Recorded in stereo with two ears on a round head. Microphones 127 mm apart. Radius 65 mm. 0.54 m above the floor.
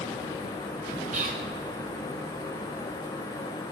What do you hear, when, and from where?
1.1 s whispering: 60° right (ahead or behind), 2 m